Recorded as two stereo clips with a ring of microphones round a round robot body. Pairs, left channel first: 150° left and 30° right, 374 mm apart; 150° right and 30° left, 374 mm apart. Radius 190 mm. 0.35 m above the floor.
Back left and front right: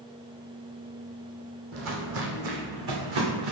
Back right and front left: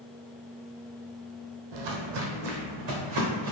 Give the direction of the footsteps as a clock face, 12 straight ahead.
11 o'clock.